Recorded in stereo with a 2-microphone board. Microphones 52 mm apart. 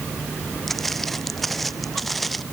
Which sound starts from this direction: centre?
Footsteps, at 0.7 s.